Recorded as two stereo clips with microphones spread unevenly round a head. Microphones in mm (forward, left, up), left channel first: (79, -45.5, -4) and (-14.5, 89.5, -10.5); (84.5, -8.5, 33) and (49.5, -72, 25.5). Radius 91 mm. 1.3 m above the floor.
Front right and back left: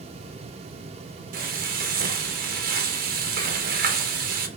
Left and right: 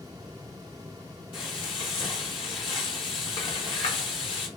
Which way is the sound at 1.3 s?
90° left.